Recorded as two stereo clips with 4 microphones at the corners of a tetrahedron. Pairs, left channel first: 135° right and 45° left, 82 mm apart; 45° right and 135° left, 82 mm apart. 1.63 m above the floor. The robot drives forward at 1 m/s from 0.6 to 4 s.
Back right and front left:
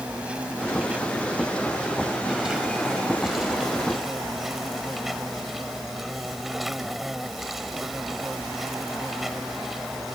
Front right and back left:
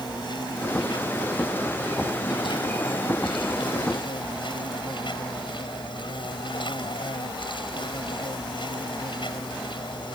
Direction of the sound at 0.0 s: 30° right.